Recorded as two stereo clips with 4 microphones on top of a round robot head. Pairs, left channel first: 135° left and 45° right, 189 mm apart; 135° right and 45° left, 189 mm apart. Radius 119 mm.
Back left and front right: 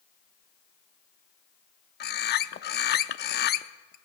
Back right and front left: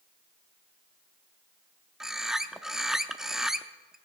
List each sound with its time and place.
2.0 s a bird: 135° left, 0.6 m